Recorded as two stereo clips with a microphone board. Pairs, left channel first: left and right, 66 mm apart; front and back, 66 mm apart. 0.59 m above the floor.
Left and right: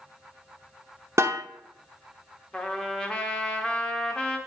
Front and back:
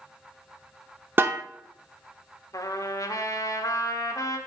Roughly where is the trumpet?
Ahead.